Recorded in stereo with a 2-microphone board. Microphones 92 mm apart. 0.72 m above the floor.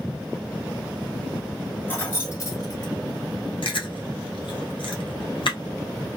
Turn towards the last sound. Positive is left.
turn(degrees=65)  # may be behind; listen again after turning